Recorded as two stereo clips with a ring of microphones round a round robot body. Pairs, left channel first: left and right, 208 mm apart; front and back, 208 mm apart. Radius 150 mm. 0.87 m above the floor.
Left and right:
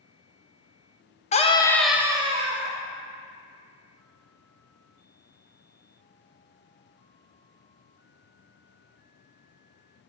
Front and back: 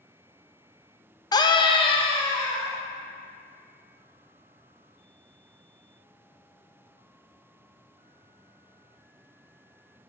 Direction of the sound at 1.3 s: 60° left.